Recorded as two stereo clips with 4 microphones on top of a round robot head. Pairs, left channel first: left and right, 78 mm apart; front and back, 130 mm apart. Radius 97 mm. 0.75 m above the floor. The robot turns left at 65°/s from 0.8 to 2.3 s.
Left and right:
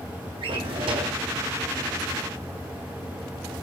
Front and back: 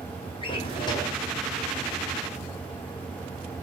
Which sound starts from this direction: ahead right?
A drawer, at 0.4 s.